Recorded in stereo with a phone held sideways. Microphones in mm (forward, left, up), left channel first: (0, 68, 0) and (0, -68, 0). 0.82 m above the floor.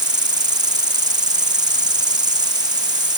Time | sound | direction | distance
0.0 | an insect | 30° right (ahead or behind) | ?